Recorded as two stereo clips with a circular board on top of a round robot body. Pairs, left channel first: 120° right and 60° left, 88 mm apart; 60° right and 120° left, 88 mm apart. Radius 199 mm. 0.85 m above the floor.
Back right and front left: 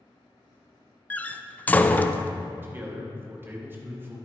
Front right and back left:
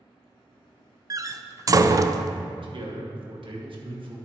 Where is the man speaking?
125° left, 2.0 m.